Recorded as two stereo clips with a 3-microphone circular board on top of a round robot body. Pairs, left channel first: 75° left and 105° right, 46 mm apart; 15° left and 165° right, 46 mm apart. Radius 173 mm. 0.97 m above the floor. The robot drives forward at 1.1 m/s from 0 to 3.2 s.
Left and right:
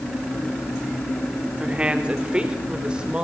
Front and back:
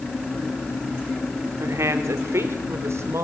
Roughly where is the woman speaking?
Behind.